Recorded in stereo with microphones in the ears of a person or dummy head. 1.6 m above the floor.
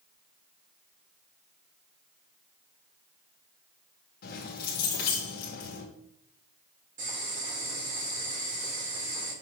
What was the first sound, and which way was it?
Keys jangling, 55° left (ahead or behind).